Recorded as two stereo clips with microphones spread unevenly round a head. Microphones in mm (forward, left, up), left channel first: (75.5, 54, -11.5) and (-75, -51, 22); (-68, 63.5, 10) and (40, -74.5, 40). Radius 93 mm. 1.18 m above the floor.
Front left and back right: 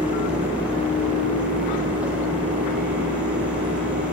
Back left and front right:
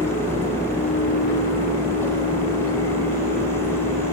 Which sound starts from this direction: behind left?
A fan, at 0.0 s.